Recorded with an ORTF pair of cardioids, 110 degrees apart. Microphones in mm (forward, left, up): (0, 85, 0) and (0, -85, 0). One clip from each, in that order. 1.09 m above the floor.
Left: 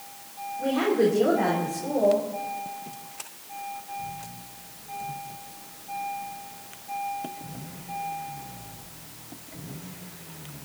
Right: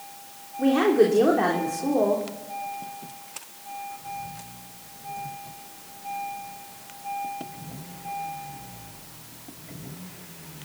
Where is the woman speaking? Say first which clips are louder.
Right 4 dB; 50° right, 3 m.